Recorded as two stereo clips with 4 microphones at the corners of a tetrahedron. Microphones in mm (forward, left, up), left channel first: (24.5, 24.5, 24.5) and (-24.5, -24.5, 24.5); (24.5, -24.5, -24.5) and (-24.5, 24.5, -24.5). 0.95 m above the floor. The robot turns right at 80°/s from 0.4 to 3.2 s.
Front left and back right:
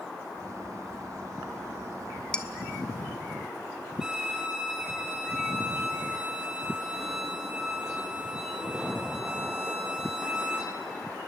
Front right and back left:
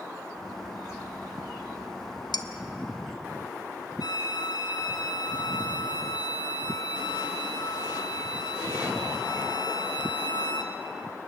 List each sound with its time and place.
2.3 s dishes clattering: 30° right, 1.2 m; by 2.5 s 20° right, 1.2 m
4.0 s a violin: 55° right, 2 m